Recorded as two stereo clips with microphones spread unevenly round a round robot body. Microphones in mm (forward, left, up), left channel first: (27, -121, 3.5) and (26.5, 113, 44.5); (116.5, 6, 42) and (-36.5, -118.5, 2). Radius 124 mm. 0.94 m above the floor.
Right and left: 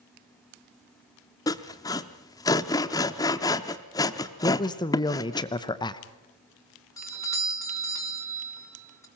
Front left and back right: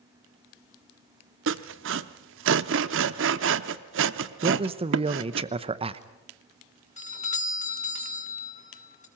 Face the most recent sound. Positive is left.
turn(degrees=-15)